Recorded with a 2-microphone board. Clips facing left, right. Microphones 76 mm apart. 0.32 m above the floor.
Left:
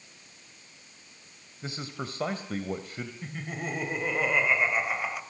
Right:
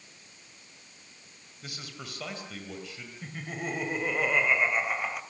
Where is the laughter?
5° left (ahead or behind), 1.9 m.